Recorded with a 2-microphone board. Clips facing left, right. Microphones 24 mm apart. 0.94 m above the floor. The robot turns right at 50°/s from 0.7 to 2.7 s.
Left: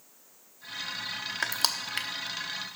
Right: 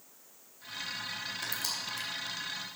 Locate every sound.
1.4 s crushing: 75° left (ahead or behind), 0.9 m; by 2.1 s 70° left (ahead or behind), 0.9 m